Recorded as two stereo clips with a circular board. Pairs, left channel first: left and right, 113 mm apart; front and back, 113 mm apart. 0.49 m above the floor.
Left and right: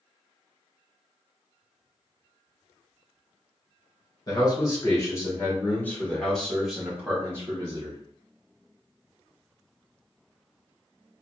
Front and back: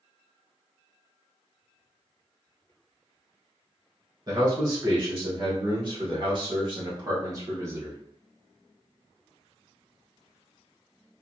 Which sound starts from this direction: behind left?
A man speaking, at 4.3 s.